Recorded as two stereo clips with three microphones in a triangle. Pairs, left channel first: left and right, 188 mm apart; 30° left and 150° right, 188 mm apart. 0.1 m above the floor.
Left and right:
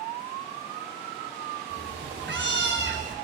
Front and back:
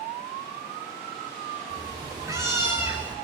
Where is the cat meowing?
85° right, 4.5 m; by 3.2 s 65° right, 3.5 m.